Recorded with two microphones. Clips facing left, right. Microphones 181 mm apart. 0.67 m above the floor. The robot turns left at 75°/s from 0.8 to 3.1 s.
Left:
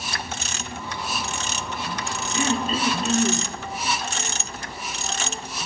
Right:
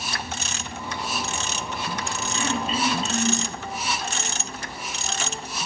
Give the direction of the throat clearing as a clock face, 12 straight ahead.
7 o'clock.